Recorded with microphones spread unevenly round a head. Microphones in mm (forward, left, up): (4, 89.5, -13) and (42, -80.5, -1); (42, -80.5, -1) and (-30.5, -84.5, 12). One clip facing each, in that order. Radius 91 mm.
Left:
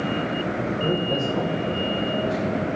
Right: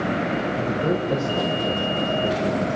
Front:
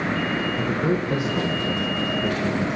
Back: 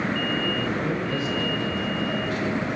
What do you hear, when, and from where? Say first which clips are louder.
0.6 s a man speaking: right 1 dB, front 3 dB; straight ahead, 1.4 m